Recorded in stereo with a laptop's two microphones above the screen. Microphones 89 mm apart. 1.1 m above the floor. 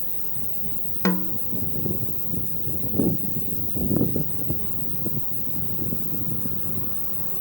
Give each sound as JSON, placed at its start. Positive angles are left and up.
{"t": 0.0, "sound": "an insect", "side_deg": -40}
{"t": 1.1, "sound": "a snare drum", "side_deg": 35}